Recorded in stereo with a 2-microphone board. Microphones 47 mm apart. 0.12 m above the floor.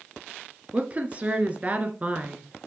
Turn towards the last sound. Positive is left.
turn(degrees=-30)  # may be behind; listen again after turning